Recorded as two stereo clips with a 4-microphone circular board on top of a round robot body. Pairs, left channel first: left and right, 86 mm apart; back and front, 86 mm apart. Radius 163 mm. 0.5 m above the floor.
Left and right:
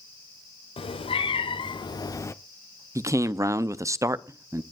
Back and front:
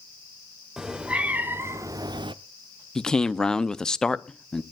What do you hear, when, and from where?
0.8 s a cat meowing: 85° left, 1.0 m; by 2.3 s 30° left, 0.6 m
3.0 s a man speaking: 100° right, 0.8 m